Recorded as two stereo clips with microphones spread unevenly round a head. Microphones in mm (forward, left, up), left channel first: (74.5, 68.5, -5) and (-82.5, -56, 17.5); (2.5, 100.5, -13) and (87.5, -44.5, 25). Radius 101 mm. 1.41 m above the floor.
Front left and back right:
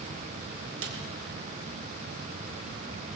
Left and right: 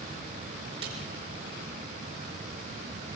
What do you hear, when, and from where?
0.8 s a snare drum: 120° right, 5 m